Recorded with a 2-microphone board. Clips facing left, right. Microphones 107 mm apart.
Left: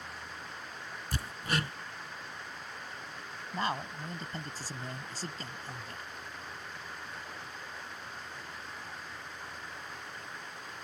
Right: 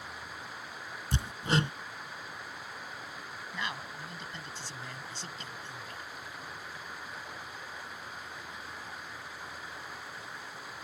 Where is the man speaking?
40° left (ahead or behind).